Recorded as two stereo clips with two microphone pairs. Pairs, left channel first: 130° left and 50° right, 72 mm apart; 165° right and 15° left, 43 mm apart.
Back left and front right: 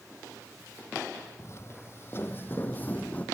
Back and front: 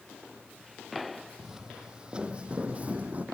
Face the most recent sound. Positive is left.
turn(degrees=65)